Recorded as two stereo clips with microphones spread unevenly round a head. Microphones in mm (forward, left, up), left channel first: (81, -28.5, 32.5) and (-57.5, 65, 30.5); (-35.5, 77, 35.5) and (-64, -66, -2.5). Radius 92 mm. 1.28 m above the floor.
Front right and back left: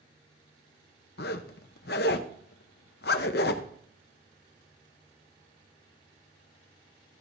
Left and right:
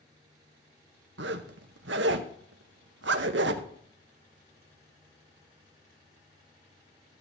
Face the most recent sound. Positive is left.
turn(degrees=-70)